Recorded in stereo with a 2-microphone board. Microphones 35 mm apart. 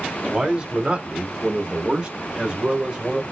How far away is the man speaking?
About 1.1 m.